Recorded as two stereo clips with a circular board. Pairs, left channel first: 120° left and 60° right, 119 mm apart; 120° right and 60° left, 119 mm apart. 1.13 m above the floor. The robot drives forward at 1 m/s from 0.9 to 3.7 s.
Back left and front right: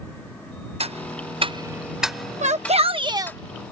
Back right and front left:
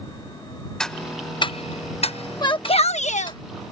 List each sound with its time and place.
0.8 s ticking: 35° right; by 3.4 s 170° right
2.4 s a shout: 65° right; by 3.4 s 125° right